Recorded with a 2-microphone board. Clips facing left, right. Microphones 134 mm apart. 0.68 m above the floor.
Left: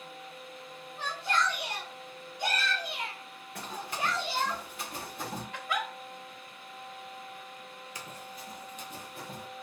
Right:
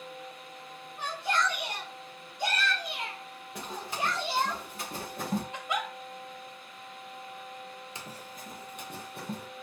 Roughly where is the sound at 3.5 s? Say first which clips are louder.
Right 1 dB; centre.